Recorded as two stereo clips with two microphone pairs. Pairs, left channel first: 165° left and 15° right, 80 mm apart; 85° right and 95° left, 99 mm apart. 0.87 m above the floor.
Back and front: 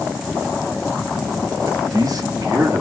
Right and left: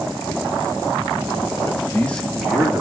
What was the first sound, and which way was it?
A man speaking, 35° right.